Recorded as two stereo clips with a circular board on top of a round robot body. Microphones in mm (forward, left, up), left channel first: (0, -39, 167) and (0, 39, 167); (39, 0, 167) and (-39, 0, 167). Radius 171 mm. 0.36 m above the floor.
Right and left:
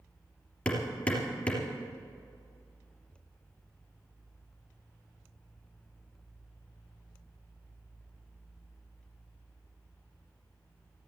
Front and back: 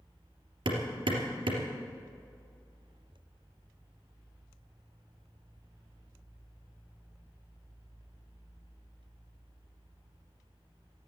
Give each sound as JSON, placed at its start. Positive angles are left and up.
{"t": 0.7, "sound": "hammering", "azimuth_deg": -165, "distance_m": 3.0}